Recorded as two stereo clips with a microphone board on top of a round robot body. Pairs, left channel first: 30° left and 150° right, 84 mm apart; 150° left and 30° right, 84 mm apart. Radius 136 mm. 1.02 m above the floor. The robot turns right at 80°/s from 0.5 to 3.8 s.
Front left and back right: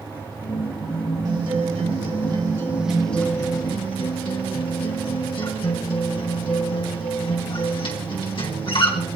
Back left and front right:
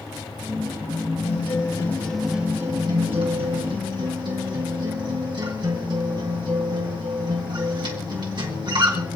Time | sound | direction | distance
1.2 | a guitar | 165° left | 2.5 m